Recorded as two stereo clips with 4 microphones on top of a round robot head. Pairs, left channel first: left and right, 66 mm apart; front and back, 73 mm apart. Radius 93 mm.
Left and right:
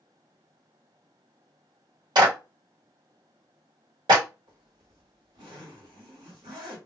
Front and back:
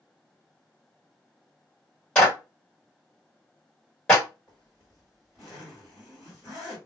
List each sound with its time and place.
2.1 s a clap: 80° right, 1.5 m
4.5 s a zipper: 95° right, 1.6 m